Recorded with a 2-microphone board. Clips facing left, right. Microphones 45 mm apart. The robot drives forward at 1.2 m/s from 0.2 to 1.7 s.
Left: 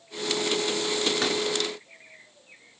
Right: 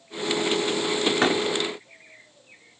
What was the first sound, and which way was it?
A door slam, 35° right (ahead or behind).